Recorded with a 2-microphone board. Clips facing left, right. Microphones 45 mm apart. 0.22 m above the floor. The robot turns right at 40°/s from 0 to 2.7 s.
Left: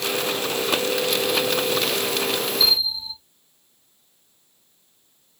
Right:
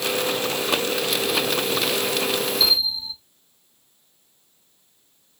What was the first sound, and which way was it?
A bell, 35° right (ahead or behind).